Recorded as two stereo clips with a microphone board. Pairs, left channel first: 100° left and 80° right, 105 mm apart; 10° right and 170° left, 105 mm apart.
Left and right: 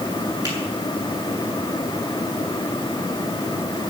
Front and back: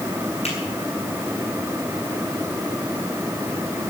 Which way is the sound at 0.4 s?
30° right.